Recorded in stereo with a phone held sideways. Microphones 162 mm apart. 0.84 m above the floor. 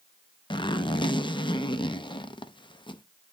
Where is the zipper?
30° left (ahead or behind), 0.6 m.